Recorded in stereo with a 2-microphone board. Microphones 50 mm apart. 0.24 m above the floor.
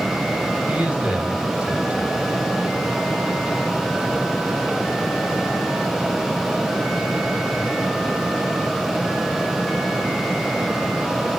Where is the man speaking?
25° right (ahead or behind), 1.7 m.